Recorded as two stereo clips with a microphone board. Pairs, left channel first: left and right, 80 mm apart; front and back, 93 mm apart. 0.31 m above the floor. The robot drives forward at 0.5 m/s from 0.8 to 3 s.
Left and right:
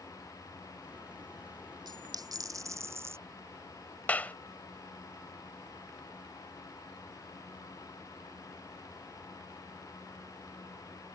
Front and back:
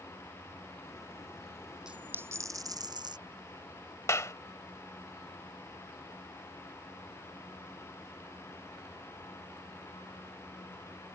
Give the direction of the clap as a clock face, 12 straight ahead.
11 o'clock.